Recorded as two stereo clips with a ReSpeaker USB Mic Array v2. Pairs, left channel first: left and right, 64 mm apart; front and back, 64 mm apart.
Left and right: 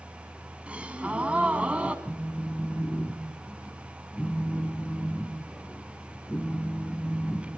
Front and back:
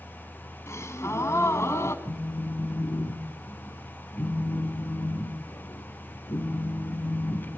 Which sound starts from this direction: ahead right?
A gasp, at 0.7 s.